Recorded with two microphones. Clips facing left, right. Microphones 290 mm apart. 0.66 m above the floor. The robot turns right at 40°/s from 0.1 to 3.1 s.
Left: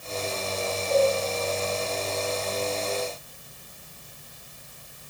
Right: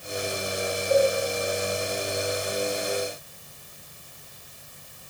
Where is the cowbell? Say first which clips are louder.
Right 1 dB; 60° right (ahead or behind), 2 m; by 1.1 s 65° right (ahead or behind), 2 m.